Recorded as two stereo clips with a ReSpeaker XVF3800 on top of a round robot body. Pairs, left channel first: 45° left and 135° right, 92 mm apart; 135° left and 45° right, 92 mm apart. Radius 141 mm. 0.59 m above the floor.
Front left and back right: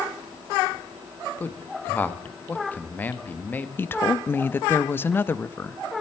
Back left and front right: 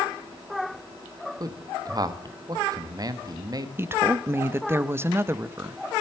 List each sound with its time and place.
1.4 s a man speaking: 20° right, 1.0 m
3.8 s a woman speaking: 5° right, 0.6 m